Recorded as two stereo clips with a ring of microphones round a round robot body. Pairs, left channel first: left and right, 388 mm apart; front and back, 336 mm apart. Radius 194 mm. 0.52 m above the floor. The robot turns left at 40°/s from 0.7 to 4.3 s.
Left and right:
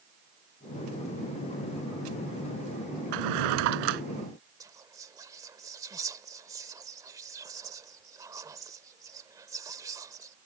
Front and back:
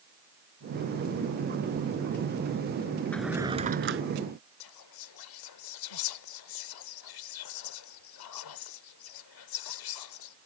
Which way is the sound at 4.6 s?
10° right.